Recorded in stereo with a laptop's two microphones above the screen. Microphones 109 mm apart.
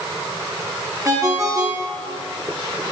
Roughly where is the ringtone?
Right.